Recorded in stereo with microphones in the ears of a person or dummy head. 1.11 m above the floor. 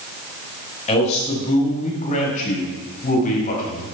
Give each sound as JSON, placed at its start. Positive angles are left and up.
{"t": 0.9, "sound": "a man speaking", "side_deg": 35, "distance_m": 4.5}